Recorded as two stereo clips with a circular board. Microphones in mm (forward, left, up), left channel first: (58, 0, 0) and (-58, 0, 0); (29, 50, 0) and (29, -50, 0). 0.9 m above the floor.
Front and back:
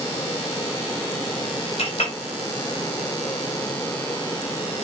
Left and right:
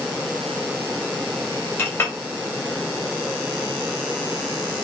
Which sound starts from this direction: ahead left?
A clink, at 1.8 s.